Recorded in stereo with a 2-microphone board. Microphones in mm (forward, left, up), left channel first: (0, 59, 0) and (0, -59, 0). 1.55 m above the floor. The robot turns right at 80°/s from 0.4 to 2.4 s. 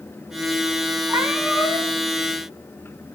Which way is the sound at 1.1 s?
35° right.